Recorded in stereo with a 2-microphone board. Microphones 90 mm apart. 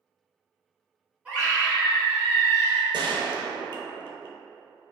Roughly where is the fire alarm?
No fire alarm in this recording.